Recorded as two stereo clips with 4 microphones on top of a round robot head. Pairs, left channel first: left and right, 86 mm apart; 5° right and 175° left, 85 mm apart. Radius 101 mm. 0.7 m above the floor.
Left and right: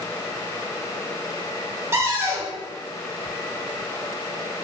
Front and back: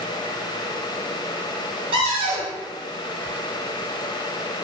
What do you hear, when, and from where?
1.9 s a cupboard door: 150° right, 0.6 m